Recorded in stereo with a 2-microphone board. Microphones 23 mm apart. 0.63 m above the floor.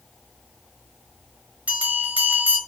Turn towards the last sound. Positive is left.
turn(degrees=-80)